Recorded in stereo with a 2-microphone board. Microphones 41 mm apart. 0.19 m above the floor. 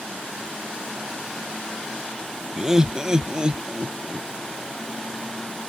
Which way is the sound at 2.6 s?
10° right (ahead or behind).